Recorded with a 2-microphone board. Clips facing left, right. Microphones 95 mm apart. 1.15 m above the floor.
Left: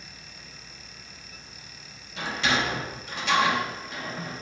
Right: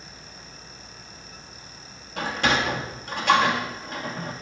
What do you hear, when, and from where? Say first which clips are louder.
2.2 s a sliding door: right 3 dB; 55° right (ahead or behind), 1.4 m